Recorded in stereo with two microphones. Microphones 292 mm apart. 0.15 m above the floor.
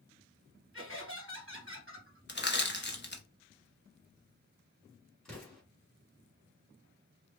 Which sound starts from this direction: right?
Laughter, at 0.7 s.